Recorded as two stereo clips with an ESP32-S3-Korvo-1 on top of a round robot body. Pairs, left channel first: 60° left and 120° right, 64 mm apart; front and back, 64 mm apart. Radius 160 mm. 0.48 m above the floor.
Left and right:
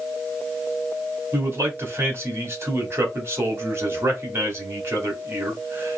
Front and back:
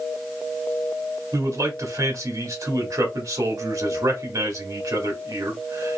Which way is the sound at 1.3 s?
165° right.